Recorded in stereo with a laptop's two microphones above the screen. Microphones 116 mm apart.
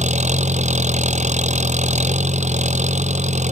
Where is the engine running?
85° right.